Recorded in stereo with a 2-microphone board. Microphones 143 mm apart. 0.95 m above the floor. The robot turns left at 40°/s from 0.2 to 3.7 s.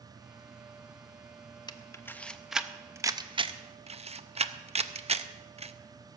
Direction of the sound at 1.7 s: 30° left (ahead or behind).